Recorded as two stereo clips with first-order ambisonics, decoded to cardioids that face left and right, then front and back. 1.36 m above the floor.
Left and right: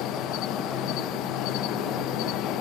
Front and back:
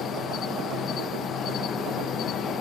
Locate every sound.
0.0 s an insect: 55° left